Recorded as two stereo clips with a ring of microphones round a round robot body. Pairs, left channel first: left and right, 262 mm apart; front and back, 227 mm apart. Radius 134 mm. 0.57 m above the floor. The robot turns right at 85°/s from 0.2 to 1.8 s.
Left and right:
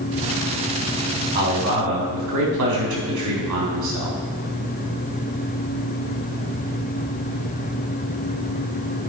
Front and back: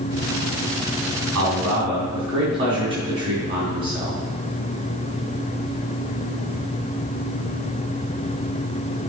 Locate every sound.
1.4 s a man speaking: 145° right, 4 m; by 4.2 s 110° right, 4 m